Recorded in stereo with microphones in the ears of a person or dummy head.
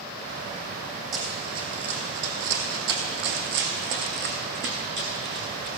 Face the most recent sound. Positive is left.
turn(degrees=-60)  # may be behind; listen again after turning